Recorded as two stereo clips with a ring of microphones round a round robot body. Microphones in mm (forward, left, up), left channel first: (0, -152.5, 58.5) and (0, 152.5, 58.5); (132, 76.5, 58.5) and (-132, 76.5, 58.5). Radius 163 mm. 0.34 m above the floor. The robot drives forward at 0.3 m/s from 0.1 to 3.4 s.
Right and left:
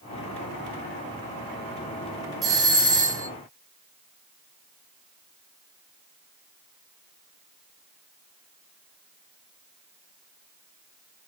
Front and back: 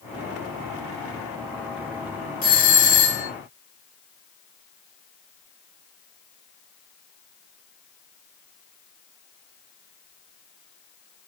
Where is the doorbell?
20° left, 1.8 m; by 3.3 s 30° left, 1.7 m.